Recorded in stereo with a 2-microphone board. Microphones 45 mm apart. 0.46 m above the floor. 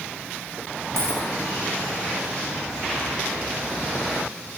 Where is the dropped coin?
70° right (ahead or behind), 7 m.